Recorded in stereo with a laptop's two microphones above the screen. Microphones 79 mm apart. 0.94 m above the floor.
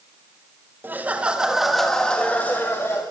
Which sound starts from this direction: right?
Laughter, at 0.8 s.